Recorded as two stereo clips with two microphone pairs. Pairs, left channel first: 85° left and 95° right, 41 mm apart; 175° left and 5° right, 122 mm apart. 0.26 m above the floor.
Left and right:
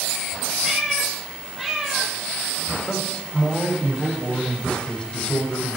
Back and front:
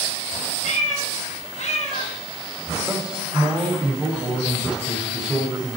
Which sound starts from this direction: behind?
A cat meowing, at 0.6 s.